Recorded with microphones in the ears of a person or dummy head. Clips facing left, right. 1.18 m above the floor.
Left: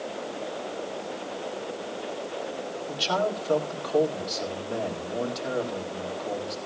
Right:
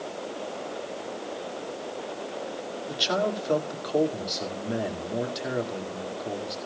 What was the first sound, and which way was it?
A man speaking, 15° right (ahead or behind).